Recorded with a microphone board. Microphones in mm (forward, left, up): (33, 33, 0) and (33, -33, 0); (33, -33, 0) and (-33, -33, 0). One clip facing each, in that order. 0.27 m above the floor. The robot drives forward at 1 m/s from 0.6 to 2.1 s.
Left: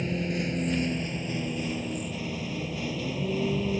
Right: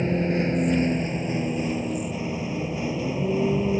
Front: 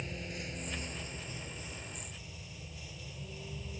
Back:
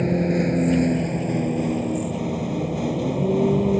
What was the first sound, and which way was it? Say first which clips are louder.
A vehicle: right 6 dB, back 22 dB; 150° right.